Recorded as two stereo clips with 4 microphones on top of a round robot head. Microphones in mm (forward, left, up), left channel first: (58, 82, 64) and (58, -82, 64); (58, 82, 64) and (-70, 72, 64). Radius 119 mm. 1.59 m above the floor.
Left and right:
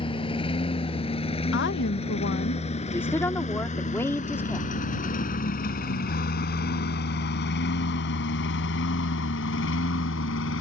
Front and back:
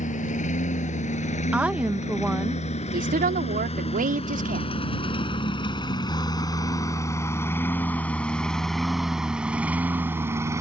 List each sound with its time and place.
0.0 s a lawn mower: 30° left; by 10.6 s 120° left
1.5 s a woman speaking: 105° left
2.9 s a woman speaking: 170° left